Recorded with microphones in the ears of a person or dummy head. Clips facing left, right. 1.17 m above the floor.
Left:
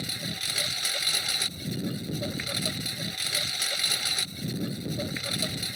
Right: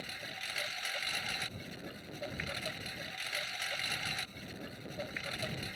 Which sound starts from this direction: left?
A lawn mower, at 0.0 s.